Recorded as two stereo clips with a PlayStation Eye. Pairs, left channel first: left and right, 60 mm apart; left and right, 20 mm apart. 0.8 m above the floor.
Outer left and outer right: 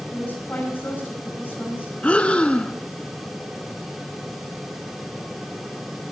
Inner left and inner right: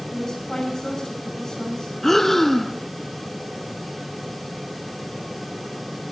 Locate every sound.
0.1 s a woman speaking: 30° left (ahead or behind), 5.5 m
2.0 s breathing: 20° left (ahead or behind), 0.6 m